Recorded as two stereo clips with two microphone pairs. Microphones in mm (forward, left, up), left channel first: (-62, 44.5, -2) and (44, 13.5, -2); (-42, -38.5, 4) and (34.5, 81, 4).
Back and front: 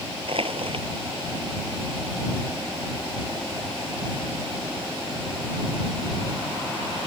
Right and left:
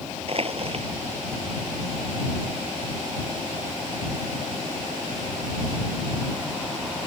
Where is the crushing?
15° left.